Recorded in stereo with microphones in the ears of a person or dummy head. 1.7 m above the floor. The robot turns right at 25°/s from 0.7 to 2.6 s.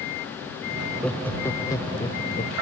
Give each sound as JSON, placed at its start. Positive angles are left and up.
{"t": 0.8, "sound": "laughter", "azimuth_deg": 0}